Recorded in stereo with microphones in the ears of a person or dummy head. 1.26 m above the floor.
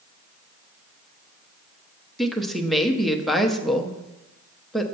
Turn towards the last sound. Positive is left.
turn(degrees=-5)  # may be behind; listen again after turning